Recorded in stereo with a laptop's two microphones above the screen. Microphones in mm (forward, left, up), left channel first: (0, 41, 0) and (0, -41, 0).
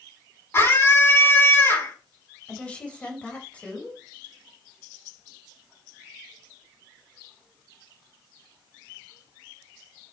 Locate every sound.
0.5 s a scream: 30° left (ahead or behind), 8 m
2.5 s a woman speaking: 15° left (ahead or behind), 4.5 m